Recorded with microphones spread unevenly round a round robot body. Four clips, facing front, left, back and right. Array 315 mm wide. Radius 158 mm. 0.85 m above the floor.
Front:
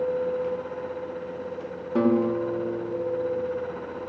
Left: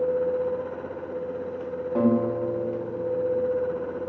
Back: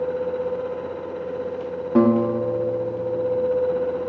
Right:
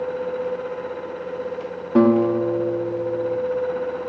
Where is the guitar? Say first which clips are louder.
Right 7 dB, back 4 dB; 130° right, 1.7 m.